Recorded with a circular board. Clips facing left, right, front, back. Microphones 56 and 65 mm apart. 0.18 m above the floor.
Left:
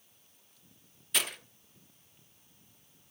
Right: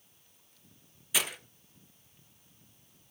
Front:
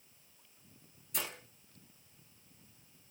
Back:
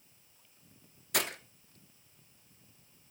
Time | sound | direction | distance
1.1 | breaking glass | 170° right | 1.2 m